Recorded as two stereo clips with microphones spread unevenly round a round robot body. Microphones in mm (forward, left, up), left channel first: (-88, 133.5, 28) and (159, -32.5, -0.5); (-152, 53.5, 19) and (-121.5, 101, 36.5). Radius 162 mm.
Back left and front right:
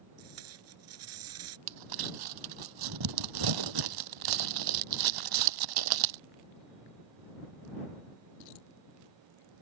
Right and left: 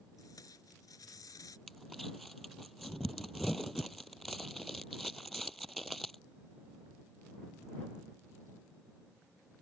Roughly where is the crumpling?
Ahead right.